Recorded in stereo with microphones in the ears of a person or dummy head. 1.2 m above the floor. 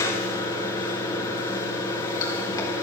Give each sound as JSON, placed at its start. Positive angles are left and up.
{"t": 0.0, "sound": "running water", "side_deg": 20, "distance_m": 3.0}